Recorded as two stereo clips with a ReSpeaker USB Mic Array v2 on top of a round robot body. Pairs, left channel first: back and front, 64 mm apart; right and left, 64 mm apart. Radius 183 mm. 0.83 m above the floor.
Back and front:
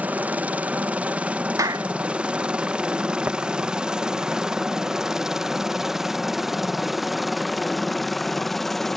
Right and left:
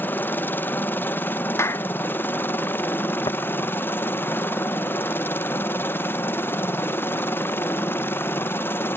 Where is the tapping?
65° right.